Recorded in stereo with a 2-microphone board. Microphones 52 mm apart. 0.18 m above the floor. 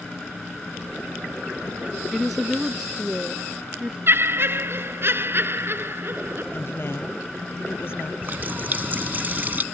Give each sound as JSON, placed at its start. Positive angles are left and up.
{"t": 2.1, "sound": "a woman speaking", "side_deg": 5}
{"t": 4.1, "sound": "laughter", "side_deg": -50}
{"t": 6.5, "sound": "a woman speaking", "side_deg": 50}
{"t": 8.2, "sound": "a running tap", "side_deg": -40}